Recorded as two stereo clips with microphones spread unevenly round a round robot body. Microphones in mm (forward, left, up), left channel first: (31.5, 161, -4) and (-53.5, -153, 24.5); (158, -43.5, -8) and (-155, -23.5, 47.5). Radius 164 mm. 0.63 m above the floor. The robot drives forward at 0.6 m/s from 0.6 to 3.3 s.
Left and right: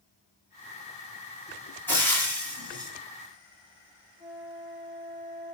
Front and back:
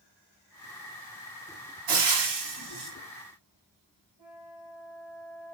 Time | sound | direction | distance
1.9 | frying | 160° left | 3 m
4.2 | a flute | 140° left | 5.5 m